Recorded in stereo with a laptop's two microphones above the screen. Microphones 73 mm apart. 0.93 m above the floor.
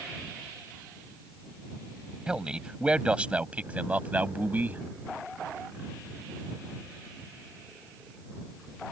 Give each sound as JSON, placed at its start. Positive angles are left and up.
{"t": 2.3, "sound": "a man speaking", "side_deg": -10}